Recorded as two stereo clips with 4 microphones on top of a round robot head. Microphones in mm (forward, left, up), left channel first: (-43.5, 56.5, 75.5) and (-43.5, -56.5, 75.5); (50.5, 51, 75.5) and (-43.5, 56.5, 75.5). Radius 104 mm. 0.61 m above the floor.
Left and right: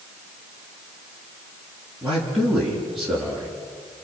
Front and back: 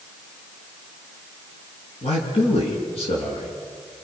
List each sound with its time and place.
2.0 s a man speaking: straight ahead, 7 m